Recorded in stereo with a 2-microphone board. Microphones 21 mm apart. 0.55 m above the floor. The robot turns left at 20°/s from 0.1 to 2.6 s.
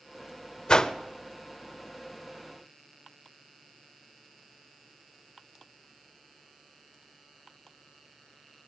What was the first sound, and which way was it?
A whoosh, 40° left (ahead or behind).